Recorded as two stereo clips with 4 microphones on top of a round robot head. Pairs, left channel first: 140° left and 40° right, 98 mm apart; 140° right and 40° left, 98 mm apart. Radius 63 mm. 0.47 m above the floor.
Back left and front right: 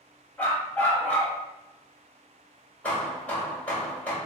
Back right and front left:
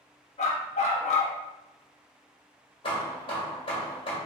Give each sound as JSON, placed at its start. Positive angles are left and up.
{"t": 0.4, "sound": "a dog barking", "azimuth_deg": -145, "distance_m": 0.9}
{"t": 2.8, "sound": "hammering", "azimuth_deg": -145, "distance_m": 1.8}